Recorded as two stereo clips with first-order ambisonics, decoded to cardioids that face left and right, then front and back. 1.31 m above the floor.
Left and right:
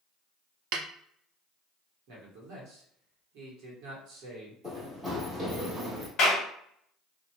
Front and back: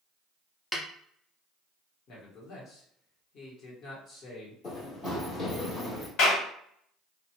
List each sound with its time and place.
0.7 s a snare drum: 85° right, 0.5 m
2.1 s a man speaking: 50° right, 1.3 m
4.6 s running footsteps: 10° right, 1.5 m; by 6.1 s 75° right, 1.6 m
6.2 s a clap: 35° left, 1.2 m